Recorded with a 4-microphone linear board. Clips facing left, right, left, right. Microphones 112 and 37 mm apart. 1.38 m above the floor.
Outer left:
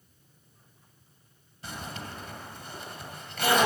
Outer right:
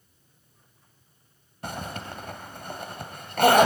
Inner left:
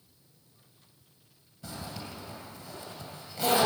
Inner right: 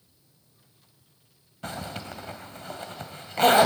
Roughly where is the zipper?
Right.